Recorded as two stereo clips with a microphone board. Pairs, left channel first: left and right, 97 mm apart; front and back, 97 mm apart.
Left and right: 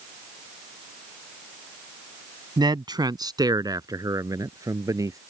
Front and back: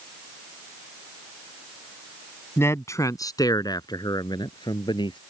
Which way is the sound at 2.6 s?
60° right.